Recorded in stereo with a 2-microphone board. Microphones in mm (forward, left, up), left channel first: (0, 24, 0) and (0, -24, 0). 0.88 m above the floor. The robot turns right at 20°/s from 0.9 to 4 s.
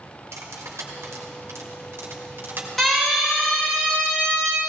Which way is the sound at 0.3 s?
80° right.